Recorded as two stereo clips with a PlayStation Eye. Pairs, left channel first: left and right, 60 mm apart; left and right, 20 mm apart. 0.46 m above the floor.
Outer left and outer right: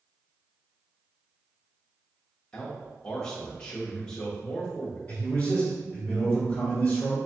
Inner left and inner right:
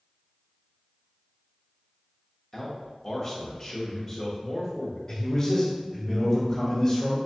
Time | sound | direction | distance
2.5 | a man speaking | 15° left (ahead or behind) | 0.7 m
5.1 | a man speaking | 15° left (ahead or behind) | 1.4 m